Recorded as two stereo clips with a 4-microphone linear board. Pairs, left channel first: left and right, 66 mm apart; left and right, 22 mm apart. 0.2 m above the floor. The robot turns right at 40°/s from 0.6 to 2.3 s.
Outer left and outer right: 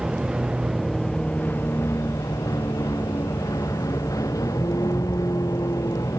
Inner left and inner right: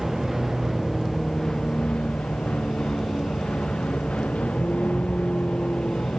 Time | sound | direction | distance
0.0 | a vehicle | 10° right | ?